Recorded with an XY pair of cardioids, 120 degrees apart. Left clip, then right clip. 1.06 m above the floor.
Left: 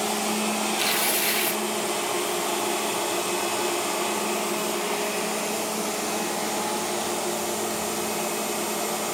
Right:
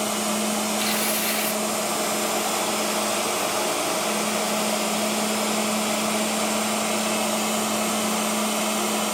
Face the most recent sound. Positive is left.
turn(degrees=15)